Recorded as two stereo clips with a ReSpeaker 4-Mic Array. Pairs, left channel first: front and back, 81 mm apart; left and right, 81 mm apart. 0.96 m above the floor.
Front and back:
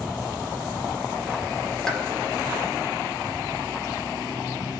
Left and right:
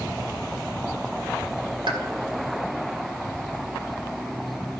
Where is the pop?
85° right, 1.4 m.